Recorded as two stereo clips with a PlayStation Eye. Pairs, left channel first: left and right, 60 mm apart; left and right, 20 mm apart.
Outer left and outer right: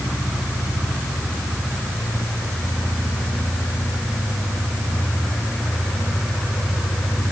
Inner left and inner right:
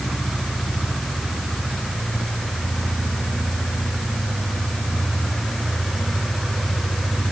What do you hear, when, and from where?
Only background noise.